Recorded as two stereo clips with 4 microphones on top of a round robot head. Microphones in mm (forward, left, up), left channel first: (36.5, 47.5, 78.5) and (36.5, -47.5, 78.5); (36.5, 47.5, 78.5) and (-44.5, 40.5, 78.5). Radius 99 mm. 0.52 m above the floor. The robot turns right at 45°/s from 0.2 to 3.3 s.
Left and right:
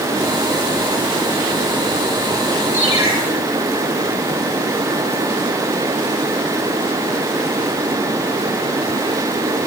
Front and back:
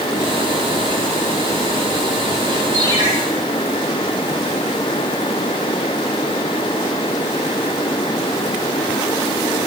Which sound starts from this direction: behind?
A ringtone, at 2.7 s.